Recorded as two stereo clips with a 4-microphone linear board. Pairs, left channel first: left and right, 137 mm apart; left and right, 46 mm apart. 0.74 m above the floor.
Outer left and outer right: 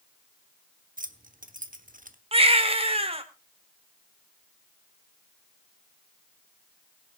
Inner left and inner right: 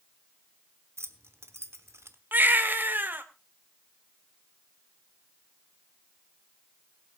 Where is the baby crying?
45° right (ahead or behind), 1.4 m.